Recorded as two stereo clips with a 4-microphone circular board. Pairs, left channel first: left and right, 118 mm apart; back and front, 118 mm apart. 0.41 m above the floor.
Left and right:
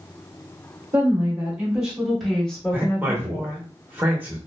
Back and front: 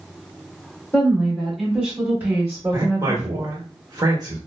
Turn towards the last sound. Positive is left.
turn(degrees=-25)